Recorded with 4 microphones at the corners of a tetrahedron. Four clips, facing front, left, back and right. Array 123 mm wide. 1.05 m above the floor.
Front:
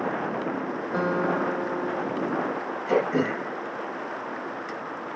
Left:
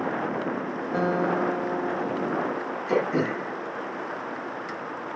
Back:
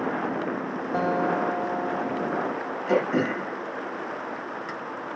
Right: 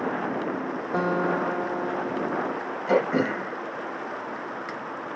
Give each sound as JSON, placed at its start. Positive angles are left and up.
{"t": 0.9, "sound": "a guitar", "azimuth_deg": -115, "distance_m": 0.8}
{"t": 2.9, "sound": "throat clearing", "azimuth_deg": -100, "distance_m": 1.3}